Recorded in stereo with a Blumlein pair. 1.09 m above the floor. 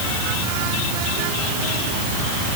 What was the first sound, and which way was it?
Only background noise.